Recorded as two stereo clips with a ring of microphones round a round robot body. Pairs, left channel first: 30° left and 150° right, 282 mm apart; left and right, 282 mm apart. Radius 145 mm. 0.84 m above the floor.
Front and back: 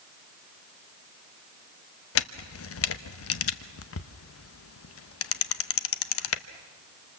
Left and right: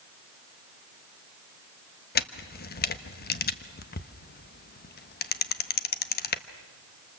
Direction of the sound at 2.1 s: 45° left.